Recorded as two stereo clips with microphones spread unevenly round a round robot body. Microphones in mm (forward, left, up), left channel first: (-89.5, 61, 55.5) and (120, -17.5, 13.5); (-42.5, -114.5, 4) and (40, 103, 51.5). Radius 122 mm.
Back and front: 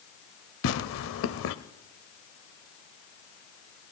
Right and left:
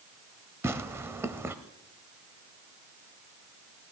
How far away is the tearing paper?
About 0.8 m.